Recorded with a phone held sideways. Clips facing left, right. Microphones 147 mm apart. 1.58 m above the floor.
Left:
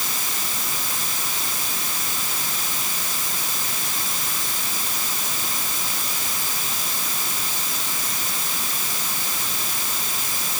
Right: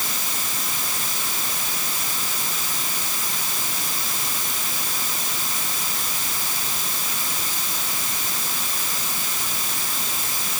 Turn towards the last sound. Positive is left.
No sound to turn to.